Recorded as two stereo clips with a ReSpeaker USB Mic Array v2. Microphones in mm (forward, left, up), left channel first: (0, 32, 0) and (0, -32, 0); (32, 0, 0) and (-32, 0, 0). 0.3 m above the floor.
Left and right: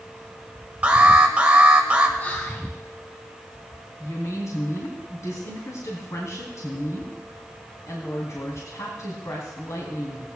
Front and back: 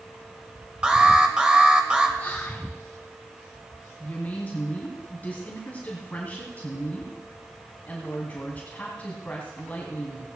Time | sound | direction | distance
0.8 | an alarm | 125° right | 1.3 m
2.2 | whispering | 45° left | 1.5 m
4.0 | a woman speaking | 65° left | 2.5 m